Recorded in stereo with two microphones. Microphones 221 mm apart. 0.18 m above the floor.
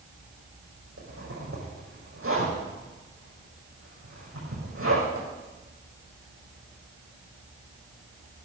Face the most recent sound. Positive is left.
turn(degrees=-80)